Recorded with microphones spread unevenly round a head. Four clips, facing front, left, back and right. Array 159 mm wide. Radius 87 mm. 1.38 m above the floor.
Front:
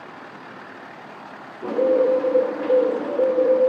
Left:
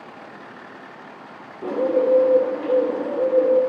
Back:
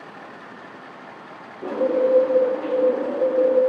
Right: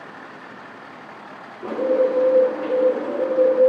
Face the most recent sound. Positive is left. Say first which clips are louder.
# even, front 2 dB
turn(degrees=115)